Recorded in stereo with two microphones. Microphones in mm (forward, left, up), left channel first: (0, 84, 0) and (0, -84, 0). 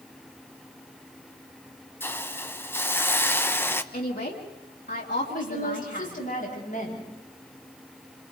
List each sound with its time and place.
2.0 s a hiss: 15° left (ahead or behind), 0.7 m
3.9 s a woman speaking: 90° left, 3 m
5.3 s a woman speaking: 55° left (ahead or behind), 9.5 m